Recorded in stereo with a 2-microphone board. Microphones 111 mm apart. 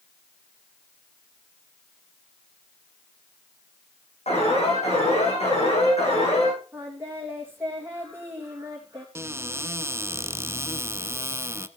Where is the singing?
20° right (ahead or behind), 4 m.